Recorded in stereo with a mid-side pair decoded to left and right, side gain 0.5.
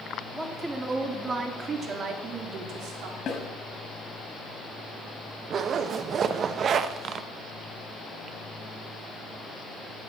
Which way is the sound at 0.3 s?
10° right.